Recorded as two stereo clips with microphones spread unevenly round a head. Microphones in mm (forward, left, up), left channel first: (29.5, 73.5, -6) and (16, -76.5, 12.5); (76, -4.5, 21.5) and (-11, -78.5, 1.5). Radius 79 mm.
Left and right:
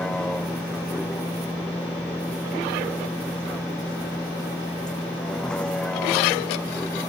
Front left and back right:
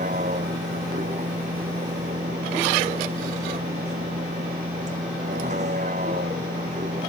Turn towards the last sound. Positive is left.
turn(degrees=170)